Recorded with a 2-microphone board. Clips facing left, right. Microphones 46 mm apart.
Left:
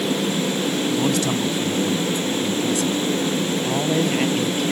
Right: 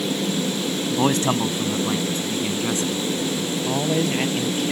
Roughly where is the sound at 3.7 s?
Centre.